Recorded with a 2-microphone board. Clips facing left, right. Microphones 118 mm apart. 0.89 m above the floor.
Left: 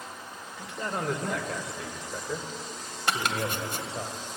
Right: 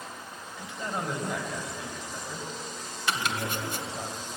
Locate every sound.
0.6 s a man speaking: 65° left (ahead or behind), 3.5 m; by 4.1 s 80° left, 4 m
3.1 s chopping: 50° left (ahead or behind), 2 m